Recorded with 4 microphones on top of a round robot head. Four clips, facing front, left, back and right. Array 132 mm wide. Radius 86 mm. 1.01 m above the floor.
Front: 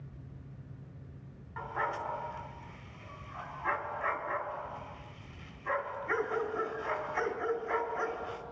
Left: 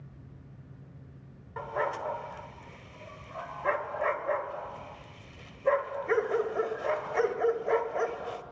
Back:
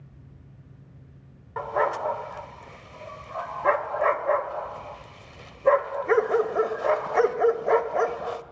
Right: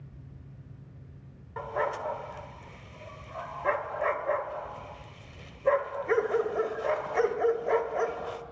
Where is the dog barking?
175° right, 1.9 m.